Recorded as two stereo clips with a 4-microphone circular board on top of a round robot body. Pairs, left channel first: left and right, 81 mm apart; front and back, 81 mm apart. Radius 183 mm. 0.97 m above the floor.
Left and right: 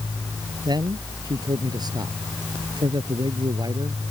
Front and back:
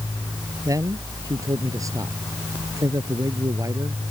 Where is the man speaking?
130° right.